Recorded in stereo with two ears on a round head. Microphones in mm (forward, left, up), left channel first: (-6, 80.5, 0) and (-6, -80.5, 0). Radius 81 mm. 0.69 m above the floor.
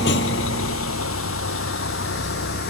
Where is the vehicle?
65° left (ahead or behind).